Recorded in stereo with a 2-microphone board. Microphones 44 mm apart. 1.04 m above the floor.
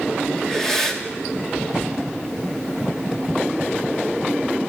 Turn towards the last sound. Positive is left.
turn(degrees=10)  # may be behind; listen again after turning